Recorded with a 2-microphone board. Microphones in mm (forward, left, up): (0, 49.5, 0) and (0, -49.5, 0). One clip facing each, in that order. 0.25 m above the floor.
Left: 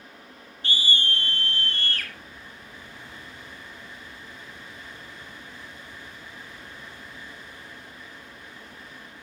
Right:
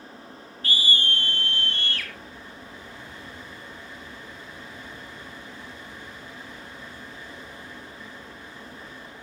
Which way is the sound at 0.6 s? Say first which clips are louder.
Right 1 dB; 30° left (ahead or behind).